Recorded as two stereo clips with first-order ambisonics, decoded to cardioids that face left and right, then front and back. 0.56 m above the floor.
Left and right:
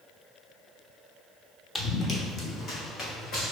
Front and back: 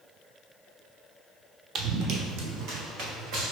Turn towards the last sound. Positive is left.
turn(degrees=140)